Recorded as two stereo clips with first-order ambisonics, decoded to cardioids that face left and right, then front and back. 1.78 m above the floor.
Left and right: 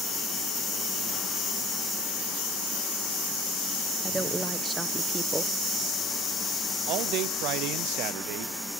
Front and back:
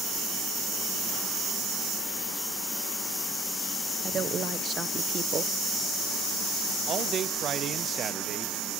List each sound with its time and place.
4.0 s a woman speaking: 155° right, 0.7 m
6.9 s a man speaking: 120° right, 0.9 m